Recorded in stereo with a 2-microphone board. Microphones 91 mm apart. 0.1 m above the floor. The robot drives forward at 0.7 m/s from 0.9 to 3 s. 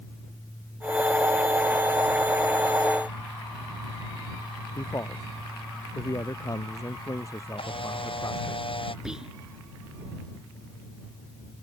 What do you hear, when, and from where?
4.8 s a man speaking: 35° left (ahead or behind)
7.6 s a camera shutter: 70° left (ahead or behind)
9.1 s whispering: 10° right (ahead or behind)